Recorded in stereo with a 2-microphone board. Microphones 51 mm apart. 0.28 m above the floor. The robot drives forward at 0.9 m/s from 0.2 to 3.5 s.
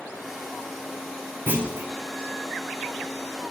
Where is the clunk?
45° right (ahead or behind), 4 m; by 1.9 s 40° right (ahead or behind), 4.5 m.